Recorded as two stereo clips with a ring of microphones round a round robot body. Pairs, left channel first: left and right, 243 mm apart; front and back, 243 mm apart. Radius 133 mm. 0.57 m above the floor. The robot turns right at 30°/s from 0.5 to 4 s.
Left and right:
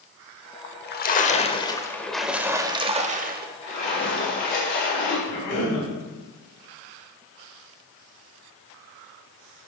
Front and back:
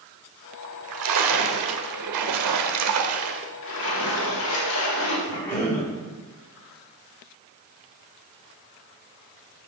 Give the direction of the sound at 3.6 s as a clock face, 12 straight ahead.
11 o'clock.